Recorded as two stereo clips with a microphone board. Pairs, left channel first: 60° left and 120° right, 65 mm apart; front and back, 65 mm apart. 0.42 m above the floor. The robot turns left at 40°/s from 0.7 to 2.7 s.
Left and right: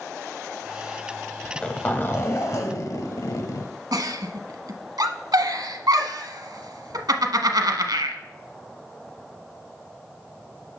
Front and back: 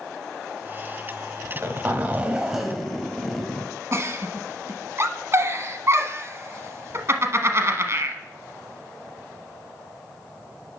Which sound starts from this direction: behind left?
A zipper, at 1.4 s.